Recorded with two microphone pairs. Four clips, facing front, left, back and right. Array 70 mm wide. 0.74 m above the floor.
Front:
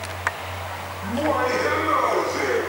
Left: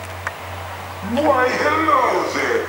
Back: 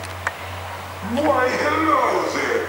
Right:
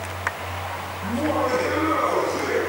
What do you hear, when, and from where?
1.0 s laughter: 110° left, 6.5 m; by 2.6 s 115° left, 7.5 m